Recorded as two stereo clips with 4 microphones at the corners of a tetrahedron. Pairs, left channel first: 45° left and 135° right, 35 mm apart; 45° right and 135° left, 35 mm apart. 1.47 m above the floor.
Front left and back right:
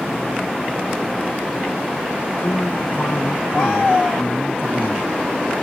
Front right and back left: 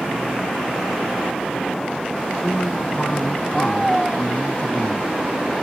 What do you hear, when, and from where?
2.4 s a man speaking: 15° left